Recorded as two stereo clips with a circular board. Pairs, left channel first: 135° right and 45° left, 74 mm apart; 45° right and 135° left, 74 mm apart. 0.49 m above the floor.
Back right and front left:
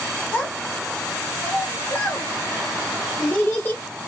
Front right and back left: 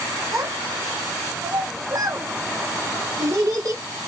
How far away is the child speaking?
About 1.1 m.